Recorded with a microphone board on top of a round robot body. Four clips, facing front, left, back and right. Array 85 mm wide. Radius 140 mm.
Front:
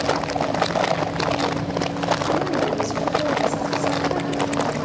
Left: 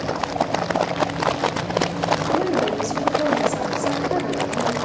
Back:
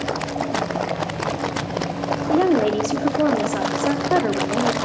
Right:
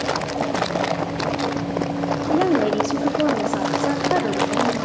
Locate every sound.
2.3 s a woman speaking: 160° right, 2 m